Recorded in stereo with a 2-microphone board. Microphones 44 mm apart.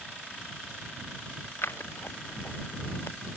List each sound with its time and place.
1.6 s scissors: 65° left (ahead or behind)